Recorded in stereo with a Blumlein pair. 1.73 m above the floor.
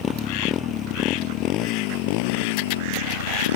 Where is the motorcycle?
25° left; by 3.6 s 60° left.